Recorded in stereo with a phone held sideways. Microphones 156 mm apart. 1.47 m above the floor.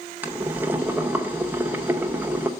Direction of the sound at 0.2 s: 10° right (ahead or behind).